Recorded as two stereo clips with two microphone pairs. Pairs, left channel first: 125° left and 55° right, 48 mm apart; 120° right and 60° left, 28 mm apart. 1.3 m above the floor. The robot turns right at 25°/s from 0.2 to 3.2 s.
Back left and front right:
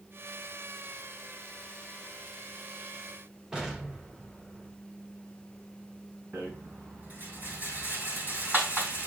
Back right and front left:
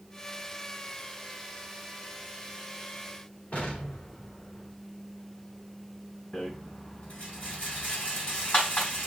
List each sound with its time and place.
3.5 s an explosion: 135° right, 3 m
6.3 s a rattle: 105° right, 3.5 m